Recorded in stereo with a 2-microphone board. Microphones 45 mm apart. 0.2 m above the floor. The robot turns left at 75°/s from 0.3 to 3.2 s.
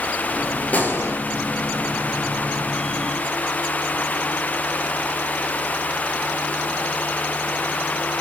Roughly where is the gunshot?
Behind left.